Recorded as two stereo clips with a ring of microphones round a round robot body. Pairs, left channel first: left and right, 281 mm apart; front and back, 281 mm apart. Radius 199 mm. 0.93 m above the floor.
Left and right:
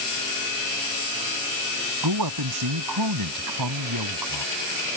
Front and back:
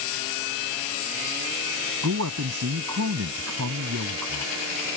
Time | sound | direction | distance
2.0 | a man speaking | 125° right | ?